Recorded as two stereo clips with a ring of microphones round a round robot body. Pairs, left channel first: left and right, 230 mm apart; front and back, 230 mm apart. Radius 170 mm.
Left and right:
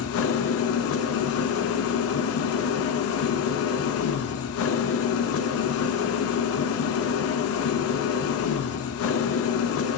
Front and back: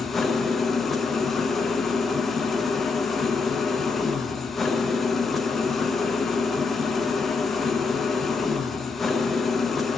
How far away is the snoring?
I don't hear snoring.